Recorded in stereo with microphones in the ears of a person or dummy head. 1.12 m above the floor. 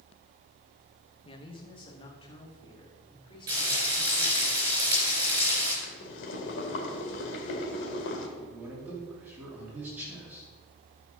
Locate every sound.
1.2 s a man speaking: 25° left (ahead or behind), 0.9 m; by 4.5 s 20° left (ahead or behind), 5 m
3.5 s frying: 30° right (ahead or behind), 4 m
5.8 s boiling: 65° left (ahead or behind), 1.9 m
8.4 s a man speaking: 15° right (ahead or behind), 3 m